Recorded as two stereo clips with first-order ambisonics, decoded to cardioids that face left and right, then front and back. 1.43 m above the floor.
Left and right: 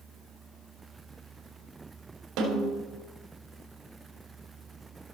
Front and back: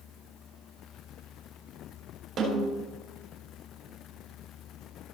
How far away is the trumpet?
No trumpet in this recording.